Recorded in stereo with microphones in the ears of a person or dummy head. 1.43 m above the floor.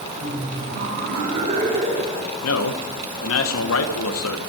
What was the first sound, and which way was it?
Laughter, 60° right (ahead or behind).